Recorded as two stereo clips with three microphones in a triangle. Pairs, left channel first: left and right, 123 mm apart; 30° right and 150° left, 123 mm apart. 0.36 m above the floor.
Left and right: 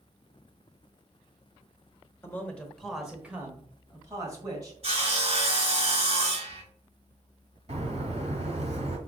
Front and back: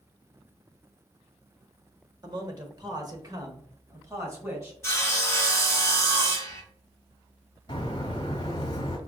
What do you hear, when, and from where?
2.2 s a man speaking: 145° left, 1.0 m; by 4.7 s 145° right, 1.9 m
4.8 s sawing: 95° right, 2 m
7.7 s a bird: 75° right, 1.2 m